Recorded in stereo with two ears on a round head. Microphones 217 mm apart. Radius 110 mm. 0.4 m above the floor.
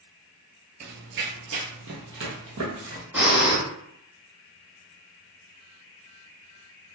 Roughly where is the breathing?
Centre.